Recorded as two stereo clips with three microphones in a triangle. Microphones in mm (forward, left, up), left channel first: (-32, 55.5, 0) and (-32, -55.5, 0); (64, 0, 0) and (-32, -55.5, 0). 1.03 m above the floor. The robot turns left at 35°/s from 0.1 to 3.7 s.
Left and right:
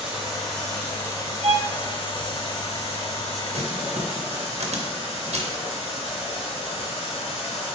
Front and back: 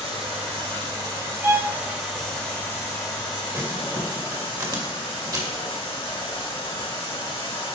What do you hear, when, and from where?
0.0 s running water: 165° right, 3.5 m; by 7.8 s 65° left, 3.5 m
1.4 s a violin: 80° right, 2.5 m; by 1.7 s 90° right, 2.5 m
3.5 s crumpling: 90° right, 1.5 m; by 5.6 s 95° right, 1.5 m